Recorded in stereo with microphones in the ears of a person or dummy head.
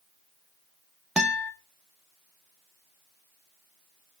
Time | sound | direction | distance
1.2 | a guitar | 5° right (ahead or behind) | 0.8 m